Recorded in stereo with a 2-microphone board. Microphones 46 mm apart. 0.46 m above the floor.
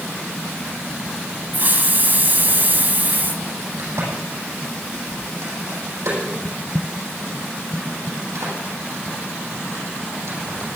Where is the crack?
85° right, 9.5 m.